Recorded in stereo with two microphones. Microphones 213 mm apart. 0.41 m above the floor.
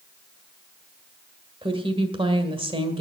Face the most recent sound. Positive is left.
turn(degrees=-25)  # may be behind; listen again after turning